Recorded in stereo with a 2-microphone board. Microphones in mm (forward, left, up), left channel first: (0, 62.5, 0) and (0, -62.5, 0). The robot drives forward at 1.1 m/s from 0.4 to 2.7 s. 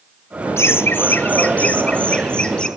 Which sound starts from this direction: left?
Laughter, at 0.6 s.